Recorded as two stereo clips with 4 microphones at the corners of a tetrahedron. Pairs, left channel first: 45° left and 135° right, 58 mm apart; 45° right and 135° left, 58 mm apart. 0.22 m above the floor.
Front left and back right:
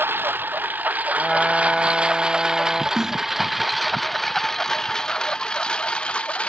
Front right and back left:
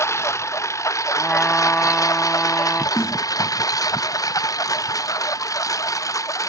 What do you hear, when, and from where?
0.0 s a lawn mower: 80° right; by 6.5 s 25° right
1.2 s a trumpet: 40° right
3.0 s a snare drum: 55° right